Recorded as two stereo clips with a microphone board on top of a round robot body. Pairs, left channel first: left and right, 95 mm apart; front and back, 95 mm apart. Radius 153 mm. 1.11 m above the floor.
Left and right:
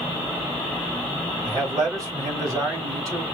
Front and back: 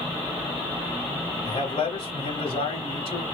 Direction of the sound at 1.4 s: 35° right.